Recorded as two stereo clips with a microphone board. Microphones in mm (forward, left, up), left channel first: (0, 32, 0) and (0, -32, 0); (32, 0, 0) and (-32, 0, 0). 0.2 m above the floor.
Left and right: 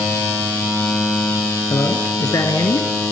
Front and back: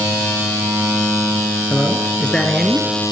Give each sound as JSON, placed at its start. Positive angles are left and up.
{"t": 1.7, "sound": "a man speaking", "azimuth_deg": 65, "distance_m": 2.5}